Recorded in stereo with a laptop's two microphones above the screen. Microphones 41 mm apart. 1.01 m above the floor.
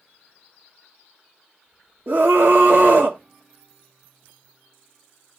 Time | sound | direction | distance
2.1 | a scream | 55° right (ahead or behind) | 1.8 m